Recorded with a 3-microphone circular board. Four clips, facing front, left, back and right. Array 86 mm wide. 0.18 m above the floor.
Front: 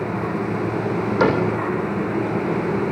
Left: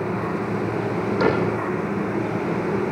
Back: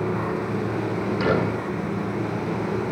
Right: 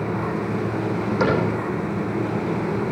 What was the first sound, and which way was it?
A cupboard door, 10° right.